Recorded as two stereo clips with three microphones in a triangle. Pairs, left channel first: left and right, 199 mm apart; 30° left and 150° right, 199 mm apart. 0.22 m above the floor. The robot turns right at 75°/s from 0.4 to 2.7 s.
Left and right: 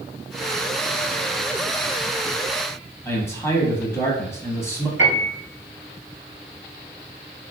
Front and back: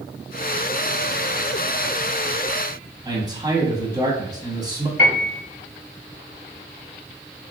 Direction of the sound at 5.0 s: 110° right.